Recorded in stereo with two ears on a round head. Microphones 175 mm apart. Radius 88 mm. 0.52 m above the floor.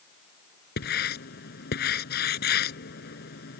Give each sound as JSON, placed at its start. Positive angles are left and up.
{"t": 0.8, "sound": "writing", "side_deg": 55}